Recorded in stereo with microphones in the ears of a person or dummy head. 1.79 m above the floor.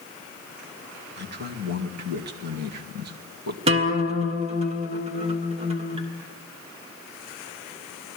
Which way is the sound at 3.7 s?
35° right (ahead or behind).